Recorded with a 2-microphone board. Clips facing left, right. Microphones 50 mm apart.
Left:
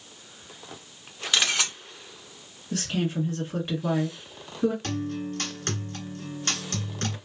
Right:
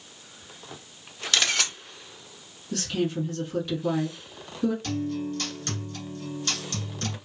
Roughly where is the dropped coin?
No dropped coin in this recording.